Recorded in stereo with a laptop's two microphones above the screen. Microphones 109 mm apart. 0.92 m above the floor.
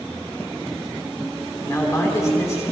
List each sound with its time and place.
1.6 s a man speaking: 30° left (ahead or behind), 3 m